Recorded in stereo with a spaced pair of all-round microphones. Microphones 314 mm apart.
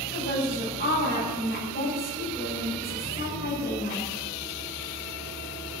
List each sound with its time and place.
0.1 s a woman speaking: 30° left (ahead or behind), 8 m